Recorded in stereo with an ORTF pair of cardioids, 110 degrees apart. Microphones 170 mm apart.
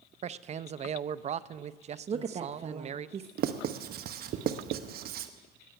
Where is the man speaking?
40° right, 0.6 m.